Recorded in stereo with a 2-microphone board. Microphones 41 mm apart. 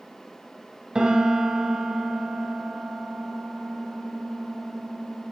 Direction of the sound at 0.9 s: 20° right (ahead or behind).